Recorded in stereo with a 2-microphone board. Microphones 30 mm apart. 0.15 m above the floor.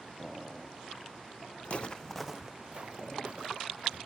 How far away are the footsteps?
About 0.6 m.